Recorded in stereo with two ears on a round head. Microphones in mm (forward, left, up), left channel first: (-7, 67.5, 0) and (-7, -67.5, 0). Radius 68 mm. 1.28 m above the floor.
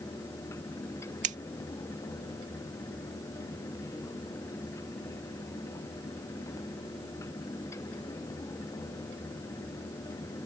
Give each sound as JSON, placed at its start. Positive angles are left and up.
{"t": 1.2, "sound": "scissors", "side_deg": -55}